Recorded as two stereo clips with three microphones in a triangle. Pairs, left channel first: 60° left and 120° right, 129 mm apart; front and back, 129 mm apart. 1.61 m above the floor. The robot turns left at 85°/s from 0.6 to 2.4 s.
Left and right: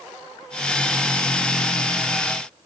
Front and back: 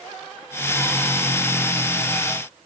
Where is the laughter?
I don't hear laughter.